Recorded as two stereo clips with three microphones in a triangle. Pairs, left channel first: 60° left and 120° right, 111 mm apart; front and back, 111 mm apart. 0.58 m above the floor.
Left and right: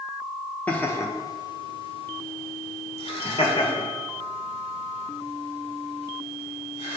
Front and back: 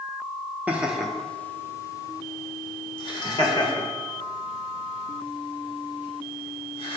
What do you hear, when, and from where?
0.7 s laughter: 120° left, 0.7 m; by 7.0 s 30° left, 3.5 m